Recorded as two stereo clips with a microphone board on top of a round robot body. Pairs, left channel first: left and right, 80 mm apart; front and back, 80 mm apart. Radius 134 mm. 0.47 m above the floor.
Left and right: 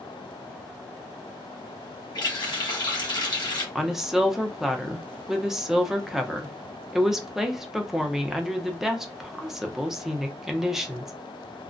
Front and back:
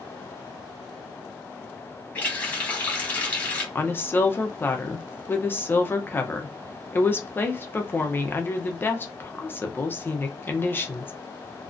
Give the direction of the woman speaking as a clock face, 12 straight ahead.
12 o'clock.